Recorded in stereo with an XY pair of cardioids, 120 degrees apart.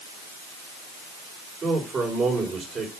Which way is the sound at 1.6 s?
40° right.